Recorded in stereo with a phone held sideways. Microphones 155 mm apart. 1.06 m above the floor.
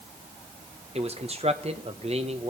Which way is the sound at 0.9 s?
40° right (ahead or behind).